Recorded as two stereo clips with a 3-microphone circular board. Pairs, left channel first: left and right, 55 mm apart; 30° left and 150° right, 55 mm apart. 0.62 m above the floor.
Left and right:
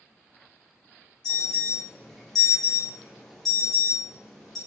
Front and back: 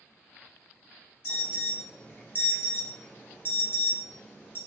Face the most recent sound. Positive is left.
turn(degrees=5)